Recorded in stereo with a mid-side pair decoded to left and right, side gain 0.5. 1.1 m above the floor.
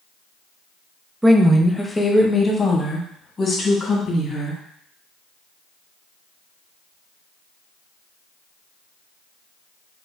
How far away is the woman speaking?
About 0.8 m.